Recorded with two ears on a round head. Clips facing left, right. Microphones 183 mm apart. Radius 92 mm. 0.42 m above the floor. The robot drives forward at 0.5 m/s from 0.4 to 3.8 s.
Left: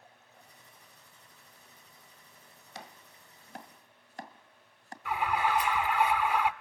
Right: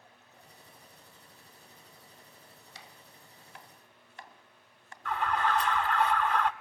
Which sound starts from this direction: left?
Chopping, at 2.8 s.